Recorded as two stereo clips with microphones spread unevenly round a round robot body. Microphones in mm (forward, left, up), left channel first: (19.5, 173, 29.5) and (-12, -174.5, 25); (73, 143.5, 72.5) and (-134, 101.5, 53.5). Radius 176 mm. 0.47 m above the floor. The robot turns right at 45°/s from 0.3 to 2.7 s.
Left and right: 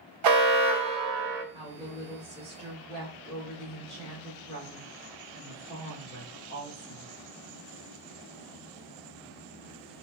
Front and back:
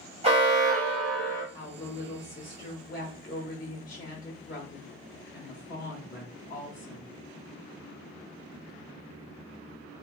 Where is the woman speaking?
25° right, 1.1 m; by 7.1 s 25° left, 1.1 m.